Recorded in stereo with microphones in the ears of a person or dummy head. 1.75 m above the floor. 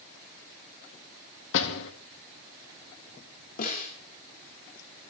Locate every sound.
1.5 s a door slam: 65° left (ahead or behind), 2.0 m
3.6 s a snare drum: 50° left (ahead or behind), 4.5 m